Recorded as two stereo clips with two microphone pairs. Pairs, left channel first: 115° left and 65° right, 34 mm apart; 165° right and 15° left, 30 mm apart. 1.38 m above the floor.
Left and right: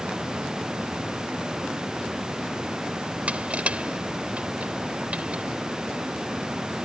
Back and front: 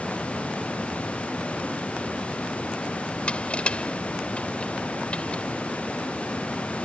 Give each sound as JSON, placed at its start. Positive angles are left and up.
{"t": 3.3, "sound": "crushing", "azimuth_deg": -115}